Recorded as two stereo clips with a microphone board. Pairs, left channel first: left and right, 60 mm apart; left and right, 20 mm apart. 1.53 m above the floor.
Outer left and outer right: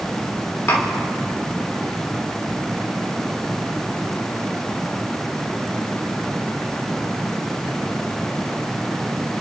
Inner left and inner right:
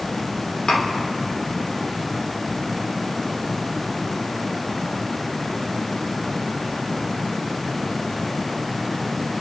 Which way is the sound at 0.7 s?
55° left (ahead or behind).